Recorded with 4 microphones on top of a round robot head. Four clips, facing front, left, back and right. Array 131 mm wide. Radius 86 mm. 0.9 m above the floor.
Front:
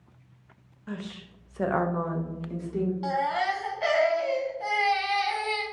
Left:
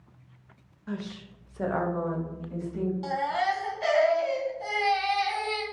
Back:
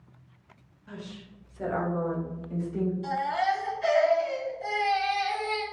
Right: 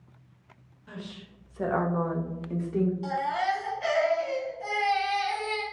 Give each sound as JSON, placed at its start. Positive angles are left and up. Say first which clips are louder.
{"t": 0.9, "sound": "a woman speaking", "louder": "left 6 dB, front 4 dB", "azimuth_deg": 40, "distance_m": 1.1}
{"t": 3.0, "sound": "a baby crying", "louder": "left 1 dB, even", "azimuth_deg": 20, "distance_m": 1.2}